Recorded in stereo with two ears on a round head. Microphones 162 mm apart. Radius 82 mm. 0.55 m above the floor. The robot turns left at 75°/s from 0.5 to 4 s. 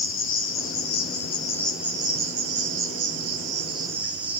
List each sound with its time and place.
0.0 s an insect: 95° left, 2.5 m; by 4.4 s 170° right, 2.5 m